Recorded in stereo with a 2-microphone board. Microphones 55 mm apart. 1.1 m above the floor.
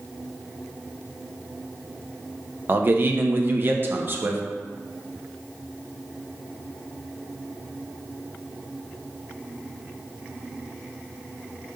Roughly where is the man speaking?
Right.